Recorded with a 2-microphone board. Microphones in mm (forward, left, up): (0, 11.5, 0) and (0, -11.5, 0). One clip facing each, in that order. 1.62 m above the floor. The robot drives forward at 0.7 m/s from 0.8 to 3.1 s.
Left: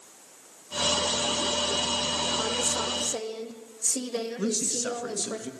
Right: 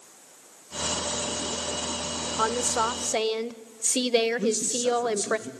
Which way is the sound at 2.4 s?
60° right (ahead or behind).